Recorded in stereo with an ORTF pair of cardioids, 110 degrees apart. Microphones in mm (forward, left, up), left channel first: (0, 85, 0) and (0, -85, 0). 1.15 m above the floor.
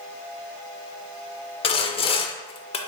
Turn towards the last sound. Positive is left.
turn(degrees=35)